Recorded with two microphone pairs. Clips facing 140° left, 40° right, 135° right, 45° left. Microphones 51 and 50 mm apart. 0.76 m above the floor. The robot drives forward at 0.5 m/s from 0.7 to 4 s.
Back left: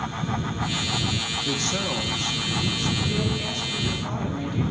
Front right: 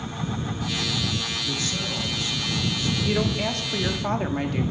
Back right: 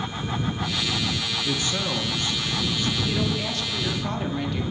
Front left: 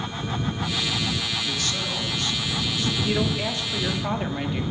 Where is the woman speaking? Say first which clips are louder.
Front right 3 dB, front left 1 dB; 20° right, 1.9 m; by 4.6 s 25° right, 1.5 m.